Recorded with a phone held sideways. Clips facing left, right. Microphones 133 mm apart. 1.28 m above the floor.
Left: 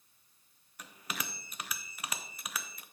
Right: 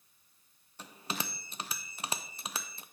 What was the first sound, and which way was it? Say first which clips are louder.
A bell: right 3 dB; 30° right (ahead or behind).